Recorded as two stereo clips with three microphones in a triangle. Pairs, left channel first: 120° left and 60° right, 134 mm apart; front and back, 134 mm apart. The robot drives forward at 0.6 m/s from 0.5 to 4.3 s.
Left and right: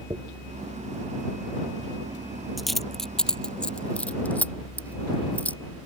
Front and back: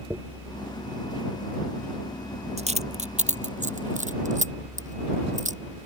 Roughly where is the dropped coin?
Right.